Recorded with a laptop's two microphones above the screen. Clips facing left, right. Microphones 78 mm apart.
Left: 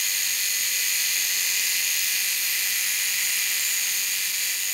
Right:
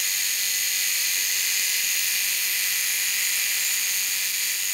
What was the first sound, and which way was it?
Only background noise.